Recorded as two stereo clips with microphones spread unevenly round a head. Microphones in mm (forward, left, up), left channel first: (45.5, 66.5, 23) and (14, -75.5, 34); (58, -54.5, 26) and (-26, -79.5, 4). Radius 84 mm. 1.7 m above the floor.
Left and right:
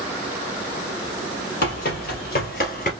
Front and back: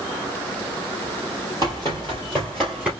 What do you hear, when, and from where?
1.6 s running footsteps: 60° left, 3 m; by 2.9 s 100° left, 2.5 m